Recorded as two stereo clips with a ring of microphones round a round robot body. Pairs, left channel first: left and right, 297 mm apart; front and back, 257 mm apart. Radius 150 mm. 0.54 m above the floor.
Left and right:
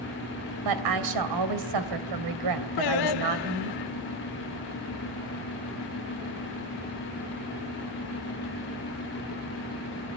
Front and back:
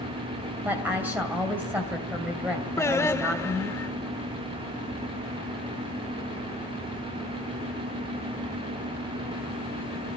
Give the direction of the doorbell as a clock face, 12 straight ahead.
No doorbell in this recording.